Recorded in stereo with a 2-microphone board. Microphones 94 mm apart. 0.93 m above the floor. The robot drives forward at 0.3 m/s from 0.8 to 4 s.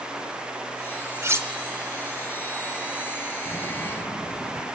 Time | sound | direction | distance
1.2 | cutlery clinking | 30° right (ahead or behind) | 1.5 m
3.5 | footsteps | 45° left (ahead or behind) | 5 m